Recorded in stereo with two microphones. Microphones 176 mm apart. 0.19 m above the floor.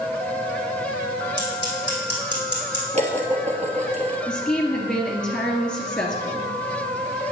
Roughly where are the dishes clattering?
Right.